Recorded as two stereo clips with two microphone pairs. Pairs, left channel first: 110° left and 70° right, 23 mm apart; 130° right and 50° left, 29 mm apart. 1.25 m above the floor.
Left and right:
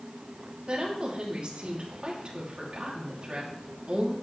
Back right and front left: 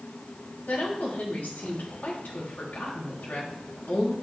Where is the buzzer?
I don't hear a buzzer.